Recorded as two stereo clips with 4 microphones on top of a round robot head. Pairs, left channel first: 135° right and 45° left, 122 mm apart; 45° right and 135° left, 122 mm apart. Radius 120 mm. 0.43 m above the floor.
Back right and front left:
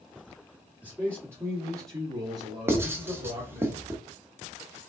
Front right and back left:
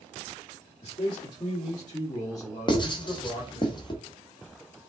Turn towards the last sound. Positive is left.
turn(degrees=-15)